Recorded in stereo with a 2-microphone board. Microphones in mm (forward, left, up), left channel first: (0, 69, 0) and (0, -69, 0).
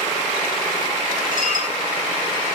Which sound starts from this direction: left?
Dishes clattering, at 1.3 s.